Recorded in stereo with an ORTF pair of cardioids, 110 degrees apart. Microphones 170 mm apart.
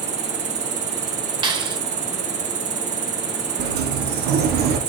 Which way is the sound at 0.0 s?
45° right.